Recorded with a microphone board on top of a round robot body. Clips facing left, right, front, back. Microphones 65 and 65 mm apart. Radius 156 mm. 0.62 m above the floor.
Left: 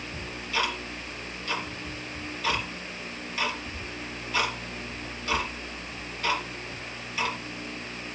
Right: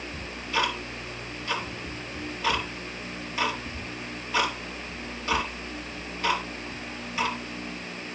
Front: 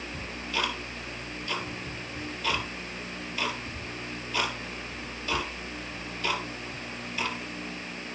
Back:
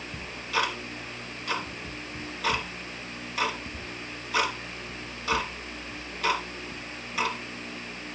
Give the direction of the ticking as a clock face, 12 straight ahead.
5 o'clock.